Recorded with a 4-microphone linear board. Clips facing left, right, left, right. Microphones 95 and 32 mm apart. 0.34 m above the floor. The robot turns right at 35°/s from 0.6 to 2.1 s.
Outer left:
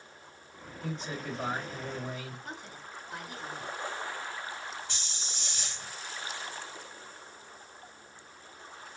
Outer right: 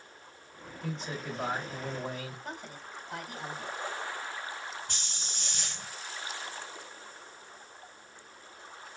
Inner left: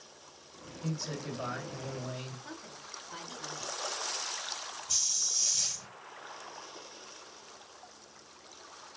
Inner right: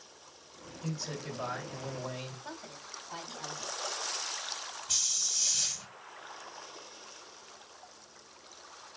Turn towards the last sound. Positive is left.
turn(degrees=-55)  # may be behind; listen again after turning